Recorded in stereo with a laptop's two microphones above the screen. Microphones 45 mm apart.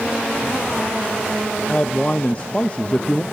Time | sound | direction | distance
1.7 | a man speaking | 25° left (ahead or behind) | 0.6 m